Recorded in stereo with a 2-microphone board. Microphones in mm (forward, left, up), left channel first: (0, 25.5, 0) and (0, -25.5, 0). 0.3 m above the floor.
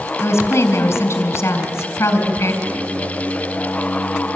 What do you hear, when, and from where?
0.2 s a woman speaking: 60° left (ahead or behind), 3.5 m
2.6 s singing: 80° right, 8 m